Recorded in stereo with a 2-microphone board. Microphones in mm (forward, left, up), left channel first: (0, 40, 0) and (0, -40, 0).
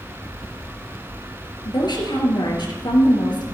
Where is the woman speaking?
70° left (ahead or behind), 3 m.